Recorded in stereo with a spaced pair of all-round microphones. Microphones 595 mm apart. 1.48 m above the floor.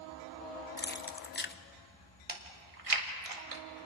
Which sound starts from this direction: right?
Chewing, at 2.3 s.